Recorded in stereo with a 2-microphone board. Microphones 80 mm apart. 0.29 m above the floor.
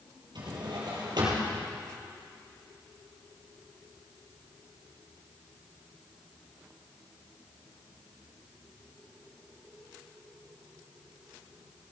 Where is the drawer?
65° right (ahead or behind), 3.5 m.